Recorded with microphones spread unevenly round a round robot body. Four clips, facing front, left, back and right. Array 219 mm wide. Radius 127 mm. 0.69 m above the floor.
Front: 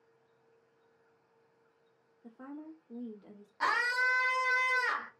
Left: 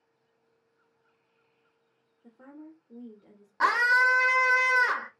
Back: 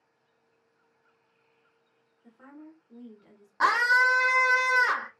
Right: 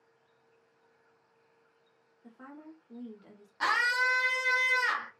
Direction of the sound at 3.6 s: 130° left.